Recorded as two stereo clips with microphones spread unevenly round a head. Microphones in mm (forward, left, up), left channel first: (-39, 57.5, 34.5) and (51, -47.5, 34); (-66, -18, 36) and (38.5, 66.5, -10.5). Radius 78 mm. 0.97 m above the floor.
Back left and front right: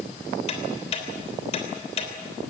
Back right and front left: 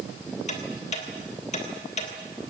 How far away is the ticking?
About 3 m.